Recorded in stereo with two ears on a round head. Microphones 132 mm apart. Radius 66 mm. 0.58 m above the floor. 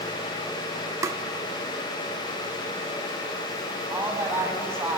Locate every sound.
1.0 s tapping: 20° right (ahead or behind), 0.7 m
3.9 s a woman speaking: 15° right (ahead or behind), 5 m